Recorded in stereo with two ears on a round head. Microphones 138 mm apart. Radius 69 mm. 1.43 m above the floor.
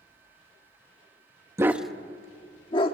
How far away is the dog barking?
About 0.8 m.